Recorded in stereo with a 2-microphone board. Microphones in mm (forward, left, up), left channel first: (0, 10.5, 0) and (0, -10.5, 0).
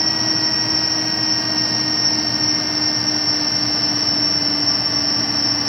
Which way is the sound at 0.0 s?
5° left (ahead or behind).